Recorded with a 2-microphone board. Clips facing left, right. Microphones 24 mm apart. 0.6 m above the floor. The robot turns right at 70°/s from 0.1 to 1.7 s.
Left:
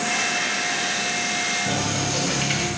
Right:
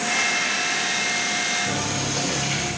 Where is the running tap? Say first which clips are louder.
Left 1 dB; 40° left (ahead or behind), 2 m; by 2.7 s 45° left (ahead or behind), 2 m.